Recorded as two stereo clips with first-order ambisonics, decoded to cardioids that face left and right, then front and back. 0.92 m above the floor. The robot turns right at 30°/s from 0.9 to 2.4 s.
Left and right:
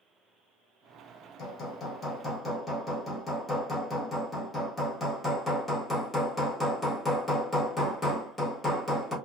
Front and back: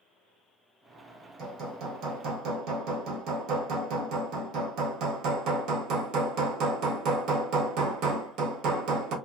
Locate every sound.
1.4 s hammering: 135° left, 0.8 m; by 9.2 s 165° left, 0.8 m